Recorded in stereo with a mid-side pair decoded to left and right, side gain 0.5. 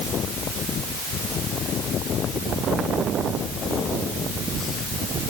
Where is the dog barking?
No dog barking in this recording.